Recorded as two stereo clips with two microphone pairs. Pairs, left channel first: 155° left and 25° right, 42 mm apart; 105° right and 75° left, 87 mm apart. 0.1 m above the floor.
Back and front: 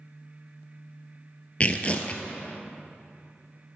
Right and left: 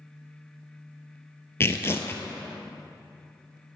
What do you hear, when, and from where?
1.6 s tearing paper: 160° right, 0.6 m